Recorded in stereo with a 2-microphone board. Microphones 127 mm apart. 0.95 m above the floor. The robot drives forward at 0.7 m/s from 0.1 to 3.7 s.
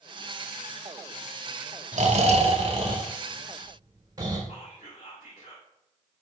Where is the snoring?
65° right (ahead or behind), 1.0 m; by 4.4 s 30° right (ahead or behind), 1.9 m.